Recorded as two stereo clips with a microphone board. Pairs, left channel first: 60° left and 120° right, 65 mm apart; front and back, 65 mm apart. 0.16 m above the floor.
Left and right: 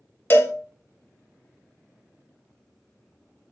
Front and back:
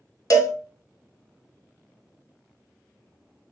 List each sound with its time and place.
0.3 s a cowbell: 10° left, 0.5 m